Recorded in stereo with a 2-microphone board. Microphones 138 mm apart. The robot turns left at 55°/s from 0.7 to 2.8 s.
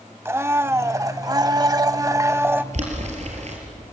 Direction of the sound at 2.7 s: 55° right (ahead or behind).